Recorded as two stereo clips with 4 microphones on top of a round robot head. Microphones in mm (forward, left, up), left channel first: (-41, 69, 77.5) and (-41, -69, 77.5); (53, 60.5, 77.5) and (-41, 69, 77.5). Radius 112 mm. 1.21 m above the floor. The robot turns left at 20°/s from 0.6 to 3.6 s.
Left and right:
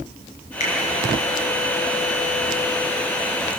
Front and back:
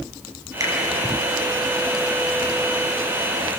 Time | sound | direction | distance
0.6 | a finger snap | 120° left | 6.5 m